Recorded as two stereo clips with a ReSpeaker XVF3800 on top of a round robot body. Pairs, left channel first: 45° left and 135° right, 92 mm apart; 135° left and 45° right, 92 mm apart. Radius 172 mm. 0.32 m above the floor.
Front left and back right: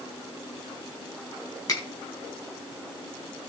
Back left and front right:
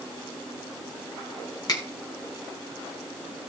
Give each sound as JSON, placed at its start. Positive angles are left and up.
{"t": 1.7, "sound": "a finger snap", "azimuth_deg": 90, "distance_m": 3.5}